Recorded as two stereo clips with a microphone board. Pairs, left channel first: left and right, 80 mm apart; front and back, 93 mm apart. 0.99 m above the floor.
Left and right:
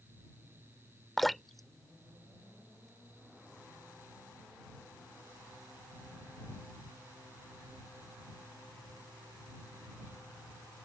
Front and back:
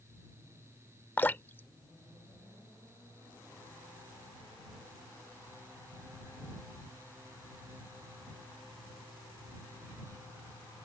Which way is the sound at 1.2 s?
5° left.